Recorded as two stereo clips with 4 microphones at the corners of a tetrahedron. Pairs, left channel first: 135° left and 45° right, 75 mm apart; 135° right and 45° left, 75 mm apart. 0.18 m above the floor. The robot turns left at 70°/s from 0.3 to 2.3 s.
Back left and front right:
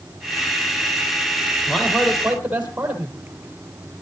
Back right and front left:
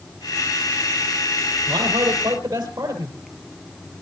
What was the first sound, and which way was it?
A man speaking, 70° left.